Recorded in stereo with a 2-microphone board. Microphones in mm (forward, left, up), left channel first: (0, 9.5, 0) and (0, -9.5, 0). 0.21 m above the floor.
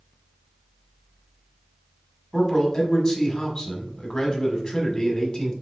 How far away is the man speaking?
About 1.1 m.